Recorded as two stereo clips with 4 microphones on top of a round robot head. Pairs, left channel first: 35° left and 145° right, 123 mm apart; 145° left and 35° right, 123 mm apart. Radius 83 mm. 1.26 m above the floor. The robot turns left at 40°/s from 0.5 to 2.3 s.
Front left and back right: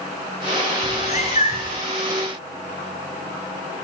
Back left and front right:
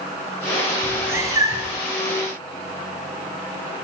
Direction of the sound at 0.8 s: 40° left.